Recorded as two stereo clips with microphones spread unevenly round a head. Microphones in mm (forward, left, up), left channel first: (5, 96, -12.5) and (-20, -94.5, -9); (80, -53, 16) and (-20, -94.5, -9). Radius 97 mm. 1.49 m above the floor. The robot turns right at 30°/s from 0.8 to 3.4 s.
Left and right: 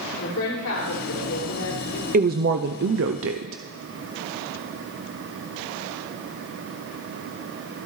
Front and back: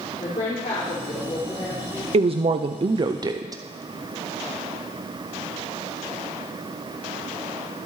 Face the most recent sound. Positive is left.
turn(degrees=-110)